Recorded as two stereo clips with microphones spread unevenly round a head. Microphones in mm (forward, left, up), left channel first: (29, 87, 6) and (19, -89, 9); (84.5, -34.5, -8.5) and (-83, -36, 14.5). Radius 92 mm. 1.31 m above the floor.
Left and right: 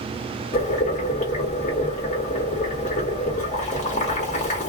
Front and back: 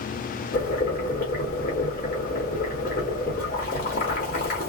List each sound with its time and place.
0.5 s boiling: 45° left, 1.5 m